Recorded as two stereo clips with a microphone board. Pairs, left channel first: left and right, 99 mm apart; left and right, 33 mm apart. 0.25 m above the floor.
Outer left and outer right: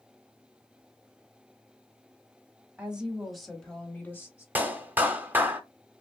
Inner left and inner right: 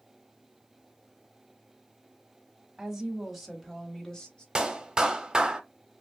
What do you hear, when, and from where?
2.8 s a woman speaking: 10° right (ahead or behind), 1.3 m; by 4.5 s 30° left (ahead or behind), 1.0 m
4.5 s a clap: 20° right (ahead or behind), 0.7 m